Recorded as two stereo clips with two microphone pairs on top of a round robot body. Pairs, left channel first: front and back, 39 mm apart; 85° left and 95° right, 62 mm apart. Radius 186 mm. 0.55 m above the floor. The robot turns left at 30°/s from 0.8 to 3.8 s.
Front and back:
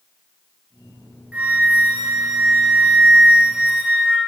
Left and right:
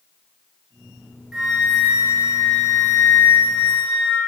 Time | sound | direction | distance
1.3 | a flute | straight behind | 1.3 m